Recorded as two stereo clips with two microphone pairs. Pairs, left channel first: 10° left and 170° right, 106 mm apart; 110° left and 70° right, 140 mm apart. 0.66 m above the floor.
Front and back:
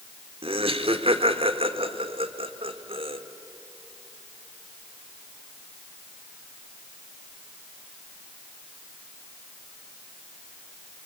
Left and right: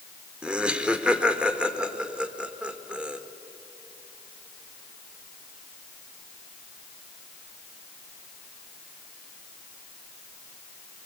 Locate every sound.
0.4 s laughter: 150° right, 1.7 m